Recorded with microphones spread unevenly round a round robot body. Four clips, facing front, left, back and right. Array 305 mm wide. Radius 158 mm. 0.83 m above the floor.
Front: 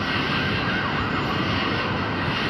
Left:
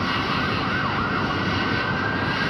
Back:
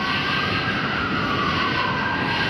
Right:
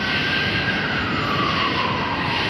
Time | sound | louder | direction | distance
0.0 | an insect | even, back 1 dB | 35° left | 1.4 m